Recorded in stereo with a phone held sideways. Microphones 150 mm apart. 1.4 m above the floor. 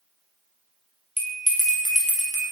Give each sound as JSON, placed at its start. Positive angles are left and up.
{"t": 1.2, "sound": "a bell", "side_deg": 50, "distance_m": 1.8}